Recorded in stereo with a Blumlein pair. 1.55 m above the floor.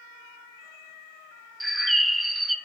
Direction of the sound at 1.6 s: 5° right.